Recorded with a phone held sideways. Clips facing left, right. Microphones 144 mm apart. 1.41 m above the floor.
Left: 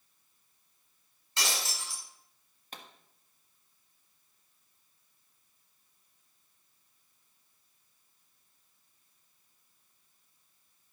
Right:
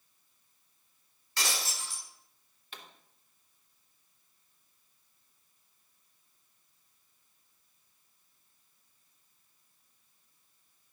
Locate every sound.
1.4 s breaking glass: 20° left (ahead or behind), 5.5 m
2.7 s a pop: 45° left (ahead or behind), 1.5 m